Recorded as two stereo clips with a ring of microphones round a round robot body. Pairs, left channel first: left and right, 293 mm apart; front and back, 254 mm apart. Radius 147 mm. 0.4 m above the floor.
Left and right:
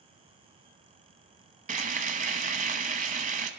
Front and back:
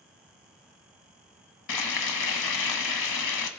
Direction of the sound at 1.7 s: 25° right.